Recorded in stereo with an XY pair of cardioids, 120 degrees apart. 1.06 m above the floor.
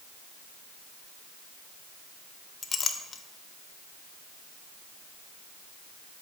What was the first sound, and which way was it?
A clink, 35° left.